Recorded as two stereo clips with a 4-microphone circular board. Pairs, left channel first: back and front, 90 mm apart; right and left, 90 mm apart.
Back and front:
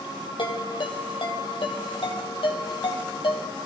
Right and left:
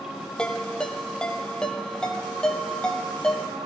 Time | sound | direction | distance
0.4 | a ringtone | 170° right | 2.5 m